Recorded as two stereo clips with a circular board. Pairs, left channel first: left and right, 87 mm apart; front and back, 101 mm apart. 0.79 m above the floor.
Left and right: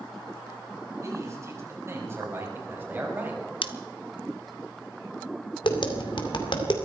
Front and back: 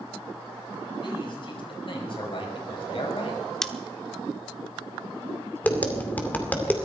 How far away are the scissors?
About 1.1 m.